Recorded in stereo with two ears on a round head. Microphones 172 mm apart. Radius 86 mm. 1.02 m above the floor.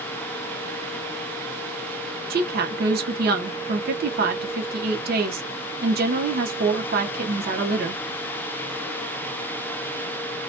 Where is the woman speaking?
50° right (ahead or behind), 0.7 m.